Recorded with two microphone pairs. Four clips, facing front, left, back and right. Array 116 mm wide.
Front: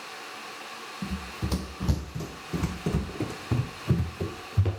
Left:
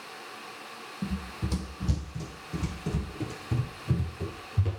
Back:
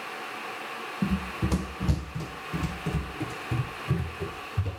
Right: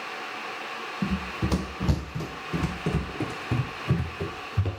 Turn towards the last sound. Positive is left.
turn(degrees=-40)